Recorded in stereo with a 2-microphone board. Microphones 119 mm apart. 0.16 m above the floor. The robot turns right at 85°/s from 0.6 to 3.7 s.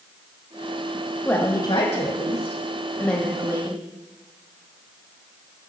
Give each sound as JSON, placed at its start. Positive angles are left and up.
{"t": 1.2, "sound": "a woman speaking", "azimuth_deg": 10, "distance_m": 5.0}